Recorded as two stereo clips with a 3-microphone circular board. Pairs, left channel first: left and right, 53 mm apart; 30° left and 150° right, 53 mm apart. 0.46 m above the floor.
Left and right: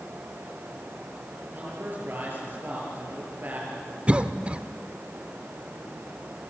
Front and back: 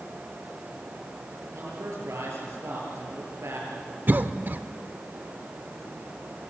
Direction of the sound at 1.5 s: 135° right.